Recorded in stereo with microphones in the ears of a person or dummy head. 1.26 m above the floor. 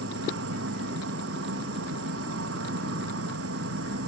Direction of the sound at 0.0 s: 75° right (ahead or behind).